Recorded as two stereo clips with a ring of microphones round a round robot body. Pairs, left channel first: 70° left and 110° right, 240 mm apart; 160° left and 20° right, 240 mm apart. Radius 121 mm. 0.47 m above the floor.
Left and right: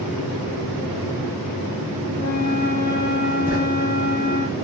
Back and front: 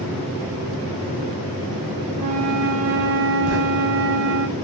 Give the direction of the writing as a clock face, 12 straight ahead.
1 o'clock.